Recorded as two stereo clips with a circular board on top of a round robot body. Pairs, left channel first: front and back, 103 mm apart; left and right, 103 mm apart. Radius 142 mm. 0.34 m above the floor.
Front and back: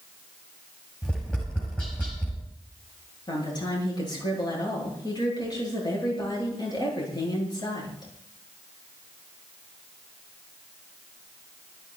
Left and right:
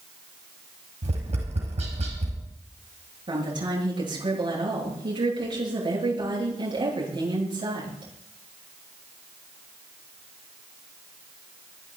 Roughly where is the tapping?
Right.